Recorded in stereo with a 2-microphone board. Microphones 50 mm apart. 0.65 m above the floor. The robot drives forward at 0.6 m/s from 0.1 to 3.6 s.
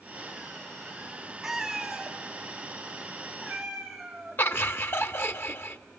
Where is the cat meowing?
5° right (ahead or behind), 1.5 m.